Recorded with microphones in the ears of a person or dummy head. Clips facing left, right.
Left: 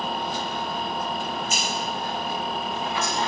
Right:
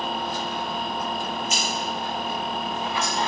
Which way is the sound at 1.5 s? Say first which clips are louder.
Even; 50° right (ahead or behind).